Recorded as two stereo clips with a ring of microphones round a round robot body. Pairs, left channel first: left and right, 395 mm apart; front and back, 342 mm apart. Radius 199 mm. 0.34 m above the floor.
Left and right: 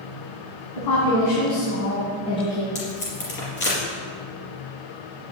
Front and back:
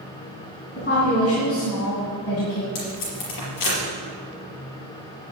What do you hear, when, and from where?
0.8 s a woman speaking: 60° left, 3 m; by 2.6 s 5° left, 3 m
2.8 s tape being pulled: 25° left, 4.5 m